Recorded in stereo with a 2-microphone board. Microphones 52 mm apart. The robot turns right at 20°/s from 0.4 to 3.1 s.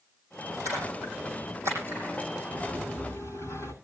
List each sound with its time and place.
0.7 s a splash: 80° right, 10 m; by 2.4 s 45° right (ahead or behind), 10 m
2.5 s a sliding door: 45° left (ahead or behind), 9.5 m; by 3.7 s 55° left (ahead or behind), 9.5 m